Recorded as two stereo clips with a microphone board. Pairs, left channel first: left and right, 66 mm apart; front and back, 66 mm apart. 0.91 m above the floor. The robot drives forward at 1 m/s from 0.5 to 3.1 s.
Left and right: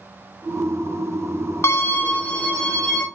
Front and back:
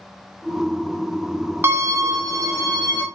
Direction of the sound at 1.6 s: 130° left.